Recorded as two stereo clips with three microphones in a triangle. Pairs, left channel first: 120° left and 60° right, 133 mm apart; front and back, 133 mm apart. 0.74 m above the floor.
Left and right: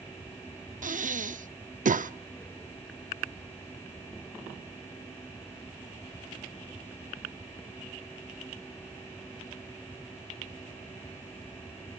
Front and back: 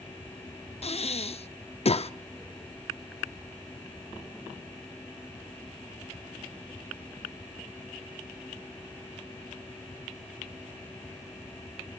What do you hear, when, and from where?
0.8 s breathing: 40° right, 0.6 m